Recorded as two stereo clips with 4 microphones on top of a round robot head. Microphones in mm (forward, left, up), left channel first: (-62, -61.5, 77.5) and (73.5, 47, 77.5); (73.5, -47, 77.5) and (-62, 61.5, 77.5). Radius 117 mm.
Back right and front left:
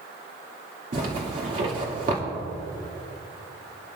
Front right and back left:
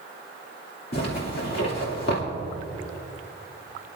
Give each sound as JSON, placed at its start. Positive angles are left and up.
{"t": 0.9, "sound": "a zipper", "azimuth_deg": -5, "distance_m": 2.5}